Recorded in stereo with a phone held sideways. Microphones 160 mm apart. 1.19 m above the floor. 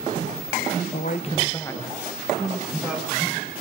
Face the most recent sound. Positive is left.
turn(degrees=-10)  # may be behind; listen again after turning